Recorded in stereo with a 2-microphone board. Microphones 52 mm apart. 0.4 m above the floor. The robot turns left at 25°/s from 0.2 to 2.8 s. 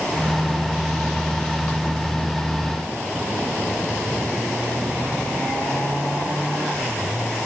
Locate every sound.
Only background noise.